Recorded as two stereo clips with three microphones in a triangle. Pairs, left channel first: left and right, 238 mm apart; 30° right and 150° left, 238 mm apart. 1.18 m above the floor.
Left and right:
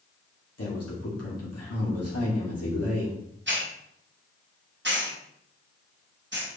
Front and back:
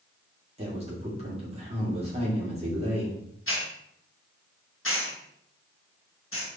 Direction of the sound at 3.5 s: 55° right.